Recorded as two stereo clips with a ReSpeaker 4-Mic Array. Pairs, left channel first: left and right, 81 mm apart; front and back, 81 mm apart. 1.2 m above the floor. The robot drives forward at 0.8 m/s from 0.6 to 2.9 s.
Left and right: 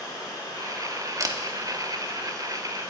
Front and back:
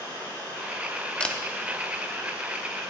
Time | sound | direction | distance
0.0 | running water | 120° left | 5 m
1.2 | a camera shutter | 70° right | 0.8 m